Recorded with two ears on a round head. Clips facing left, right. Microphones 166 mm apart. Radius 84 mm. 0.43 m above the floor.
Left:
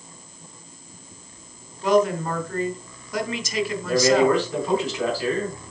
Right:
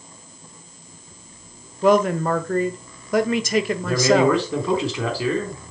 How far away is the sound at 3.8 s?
About 4 m.